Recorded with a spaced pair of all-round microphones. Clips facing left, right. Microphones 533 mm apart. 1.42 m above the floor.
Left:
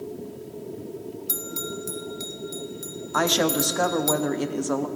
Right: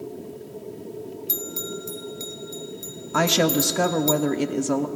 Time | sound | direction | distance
1.3 | a bell | 40° left (ahead or behind) | 0.6 m
3.1 | a woman speaking | 50° right (ahead or behind) | 0.6 m